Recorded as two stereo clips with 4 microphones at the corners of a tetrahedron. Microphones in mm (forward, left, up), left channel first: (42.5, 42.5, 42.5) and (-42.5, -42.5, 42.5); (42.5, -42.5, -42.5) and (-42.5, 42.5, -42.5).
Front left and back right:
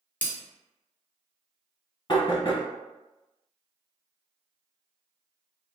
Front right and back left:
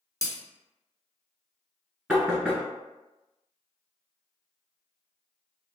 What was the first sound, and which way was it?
Breaking glass, 20° right.